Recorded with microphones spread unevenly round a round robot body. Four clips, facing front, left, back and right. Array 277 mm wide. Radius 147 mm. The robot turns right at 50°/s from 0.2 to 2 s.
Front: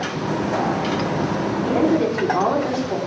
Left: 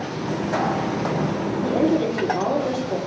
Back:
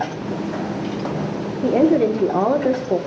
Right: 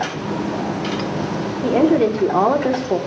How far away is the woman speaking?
About 1.6 m.